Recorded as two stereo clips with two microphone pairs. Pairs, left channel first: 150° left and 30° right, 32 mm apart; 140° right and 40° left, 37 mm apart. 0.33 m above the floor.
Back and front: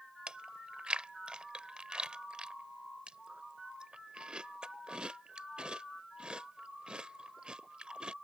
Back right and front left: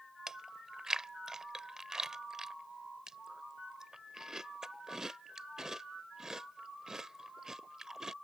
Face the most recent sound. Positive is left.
turn(degrees=-25)